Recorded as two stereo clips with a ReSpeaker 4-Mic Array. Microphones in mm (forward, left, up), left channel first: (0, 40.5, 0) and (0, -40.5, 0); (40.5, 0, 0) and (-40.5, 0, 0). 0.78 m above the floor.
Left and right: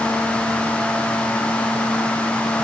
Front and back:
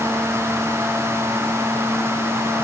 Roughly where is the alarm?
No alarm in this recording.